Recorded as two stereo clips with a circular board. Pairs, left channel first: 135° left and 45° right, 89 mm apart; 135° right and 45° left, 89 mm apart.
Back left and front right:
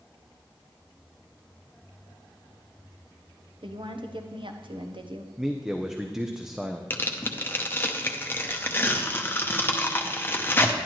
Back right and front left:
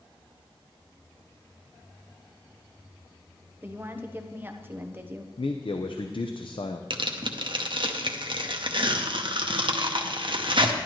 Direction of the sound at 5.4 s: 130° right.